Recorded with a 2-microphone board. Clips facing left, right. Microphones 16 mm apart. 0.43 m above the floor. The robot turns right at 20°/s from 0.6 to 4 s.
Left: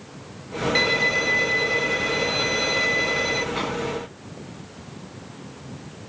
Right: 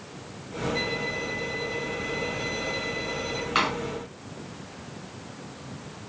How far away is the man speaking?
I don't hear a man speaking.